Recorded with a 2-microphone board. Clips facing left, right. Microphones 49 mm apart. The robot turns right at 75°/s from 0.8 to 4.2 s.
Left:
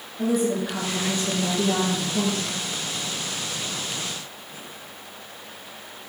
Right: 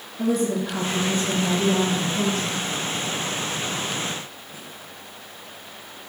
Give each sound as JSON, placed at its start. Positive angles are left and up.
{"t": 0.2, "sound": "a woman speaking", "azimuth_deg": 5, "distance_m": 3.0}